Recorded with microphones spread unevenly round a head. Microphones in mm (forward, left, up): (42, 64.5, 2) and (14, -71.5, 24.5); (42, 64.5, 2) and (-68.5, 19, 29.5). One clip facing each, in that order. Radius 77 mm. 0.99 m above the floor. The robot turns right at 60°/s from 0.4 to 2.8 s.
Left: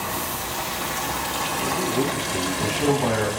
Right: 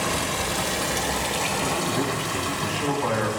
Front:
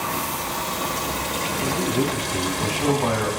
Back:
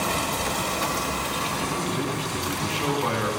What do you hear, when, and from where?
0.0 s running water: 85° right, 1.2 m; by 3.4 s 55° left, 1.2 m
1.6 s a man speaking: 15° right, 1.8 m; by 3.3 s 60° left, 1.8 m